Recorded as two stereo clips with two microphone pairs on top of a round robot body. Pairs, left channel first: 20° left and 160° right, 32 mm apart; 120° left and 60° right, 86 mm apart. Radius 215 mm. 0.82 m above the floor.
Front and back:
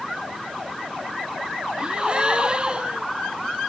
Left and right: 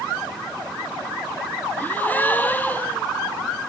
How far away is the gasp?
About 0.9 m.